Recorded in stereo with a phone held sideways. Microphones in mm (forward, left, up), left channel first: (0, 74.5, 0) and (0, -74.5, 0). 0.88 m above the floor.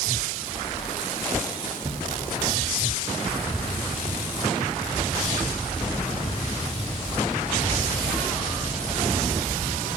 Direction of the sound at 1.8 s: 45° right (ahead or behind).